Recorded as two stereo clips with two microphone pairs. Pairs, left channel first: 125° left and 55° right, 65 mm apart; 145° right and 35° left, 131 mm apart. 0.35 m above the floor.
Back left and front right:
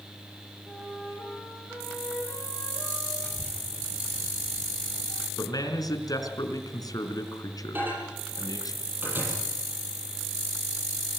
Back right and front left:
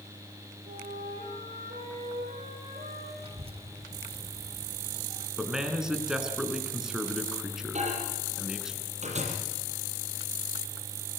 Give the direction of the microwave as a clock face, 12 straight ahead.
12 o'clock.